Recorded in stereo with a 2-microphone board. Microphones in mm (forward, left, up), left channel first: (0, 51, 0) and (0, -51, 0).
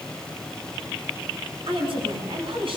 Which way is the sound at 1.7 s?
55° right (ahead or behind).